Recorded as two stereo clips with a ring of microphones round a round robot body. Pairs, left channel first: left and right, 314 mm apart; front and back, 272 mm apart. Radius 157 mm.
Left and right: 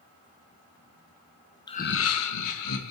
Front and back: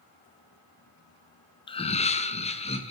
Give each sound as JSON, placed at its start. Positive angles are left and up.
{"t": 1.7, "sound": "laughter", "azimuth_deg": 35, "distance_m": 0.6}